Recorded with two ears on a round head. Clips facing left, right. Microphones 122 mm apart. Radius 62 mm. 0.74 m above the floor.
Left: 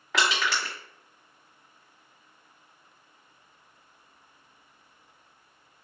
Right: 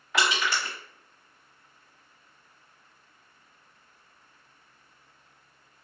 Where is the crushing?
60° left (ahead or behind), 1.2 m.